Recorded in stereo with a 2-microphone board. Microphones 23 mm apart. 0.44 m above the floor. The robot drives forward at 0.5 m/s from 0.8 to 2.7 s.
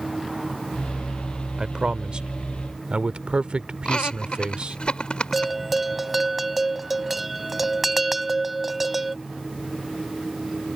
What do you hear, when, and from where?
1.6 s a man speaking: 35° right (ahead or behind); by 4.8 s 45° right (ahead or behind)
3.9 s laughter: 45° left (ahead or behind)
5.3 s a bell: 5° right (ahead or behind)